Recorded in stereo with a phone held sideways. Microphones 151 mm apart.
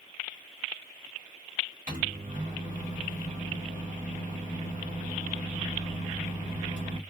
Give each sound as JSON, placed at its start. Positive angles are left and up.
{"t": 1.9, "sound": "a microwave", "side_deg": -60, "distance_m": 1.4}